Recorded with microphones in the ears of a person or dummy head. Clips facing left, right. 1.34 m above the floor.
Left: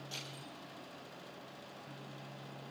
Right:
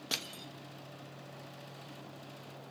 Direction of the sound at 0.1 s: 80° right.